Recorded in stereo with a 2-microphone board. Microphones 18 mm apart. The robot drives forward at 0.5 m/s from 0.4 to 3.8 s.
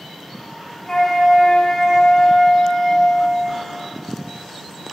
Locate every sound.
0.9 s a flute: 35° left (ahead or behind), 1.5 m; by 3.5 s 55° left (ahead or behind), 1.1 m